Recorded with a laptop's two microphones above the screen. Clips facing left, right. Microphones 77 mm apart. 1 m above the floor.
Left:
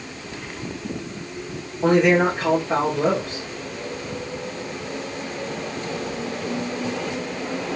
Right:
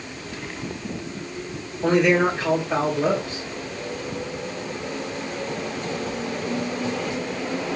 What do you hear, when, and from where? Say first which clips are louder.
1.8 s a man speaking: left 2 dB; 55° left (ahead or behind), 2 m